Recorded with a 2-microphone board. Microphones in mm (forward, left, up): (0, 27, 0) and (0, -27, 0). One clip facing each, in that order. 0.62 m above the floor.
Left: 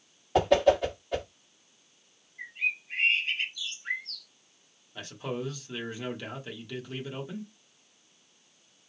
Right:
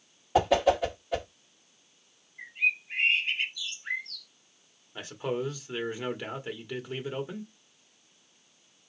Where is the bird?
15° right (ahead or behind), 2.5 m.